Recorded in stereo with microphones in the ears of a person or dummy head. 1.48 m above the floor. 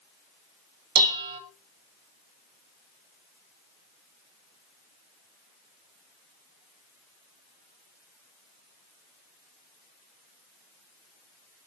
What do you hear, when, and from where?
0.9 s dishes clattering: 55° right (ahead or behind), 1.9 m